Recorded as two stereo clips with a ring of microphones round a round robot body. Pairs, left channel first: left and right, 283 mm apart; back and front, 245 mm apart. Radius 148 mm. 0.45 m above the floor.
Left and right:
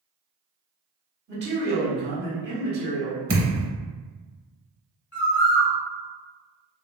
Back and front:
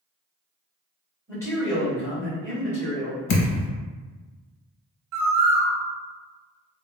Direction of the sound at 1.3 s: 105° right.